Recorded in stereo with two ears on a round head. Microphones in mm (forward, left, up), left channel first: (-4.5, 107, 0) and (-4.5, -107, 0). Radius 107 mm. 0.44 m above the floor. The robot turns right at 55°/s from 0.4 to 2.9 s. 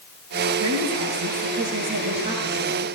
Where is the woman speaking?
120° right, 7.5 m; by 2.9 s 5° left, 7.5 m.